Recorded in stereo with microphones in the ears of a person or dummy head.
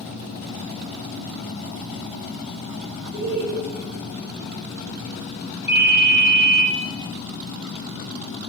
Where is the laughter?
45° right (ahead or behind), 1.3 m.